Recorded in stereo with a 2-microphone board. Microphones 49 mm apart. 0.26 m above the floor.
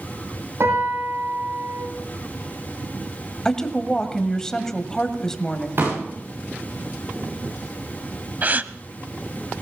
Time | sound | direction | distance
0.6 | a piano | 75° right (ahead or behind) | 9.5 m
3.5 | a woman speaking | 10° left (ahead or behind) | 1.4 m
5.8 | a pop | 55° right (ahead or behind) | 9.5 m
8.4 | a gasp | 40° right (ahead or behind) | 0.6 m